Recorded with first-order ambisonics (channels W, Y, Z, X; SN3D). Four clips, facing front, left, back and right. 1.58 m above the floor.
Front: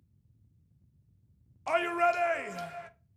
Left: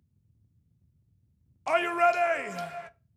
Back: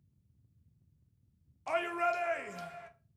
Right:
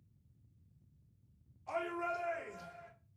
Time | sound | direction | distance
1.7 | a shout | 75° left | 0.5 m